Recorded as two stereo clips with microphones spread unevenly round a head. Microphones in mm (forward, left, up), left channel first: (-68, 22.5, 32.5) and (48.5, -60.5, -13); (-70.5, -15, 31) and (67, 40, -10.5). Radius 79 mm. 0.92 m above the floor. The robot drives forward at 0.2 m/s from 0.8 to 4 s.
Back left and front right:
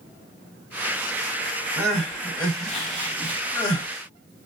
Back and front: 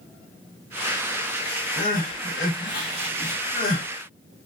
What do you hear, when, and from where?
1.8 s crying: 130° right, 1.1 m; by 3.9 s 145° right, 1.4 m